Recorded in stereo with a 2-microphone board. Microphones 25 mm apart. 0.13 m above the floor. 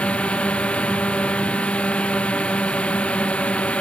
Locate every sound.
0.0 s a drone: 60° left (ahead or behind)